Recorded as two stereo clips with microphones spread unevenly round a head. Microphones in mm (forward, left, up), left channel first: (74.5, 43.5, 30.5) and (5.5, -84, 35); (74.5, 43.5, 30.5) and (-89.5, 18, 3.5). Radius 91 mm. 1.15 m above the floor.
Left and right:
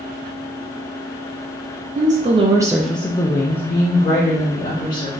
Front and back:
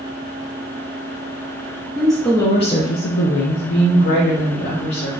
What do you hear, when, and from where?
1.9 s a woman speaking: 90° right, 0.6 m; by 5.2 s 35° left, 1.5 m